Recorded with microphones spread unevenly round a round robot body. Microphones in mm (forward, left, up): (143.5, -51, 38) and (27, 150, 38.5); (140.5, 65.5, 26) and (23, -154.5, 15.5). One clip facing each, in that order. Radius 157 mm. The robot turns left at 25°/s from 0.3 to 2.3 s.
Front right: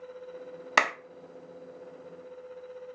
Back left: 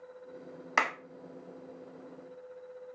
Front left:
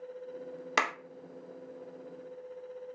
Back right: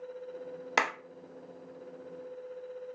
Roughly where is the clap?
Ahead.